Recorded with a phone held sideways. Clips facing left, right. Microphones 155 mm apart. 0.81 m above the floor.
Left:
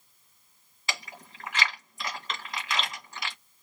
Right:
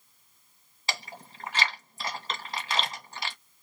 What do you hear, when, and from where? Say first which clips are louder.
0.9 s chewing: right 1 dB; 35° right (ahead or behind), 1.8 m